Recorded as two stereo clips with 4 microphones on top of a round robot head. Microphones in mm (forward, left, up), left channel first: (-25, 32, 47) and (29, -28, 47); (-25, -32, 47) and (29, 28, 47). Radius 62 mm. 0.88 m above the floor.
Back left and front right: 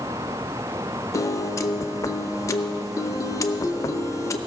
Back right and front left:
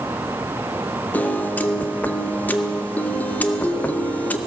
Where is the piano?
165° left, 0.7 m.